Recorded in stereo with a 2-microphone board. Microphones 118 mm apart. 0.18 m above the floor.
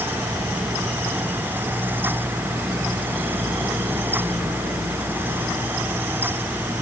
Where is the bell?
No bell in this recording.